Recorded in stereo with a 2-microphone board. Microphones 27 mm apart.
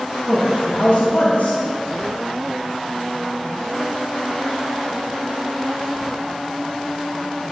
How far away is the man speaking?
About 2.5 m.